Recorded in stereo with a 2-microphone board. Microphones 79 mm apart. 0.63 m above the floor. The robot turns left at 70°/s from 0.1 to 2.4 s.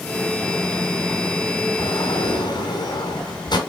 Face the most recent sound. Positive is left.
turn(degrees=60)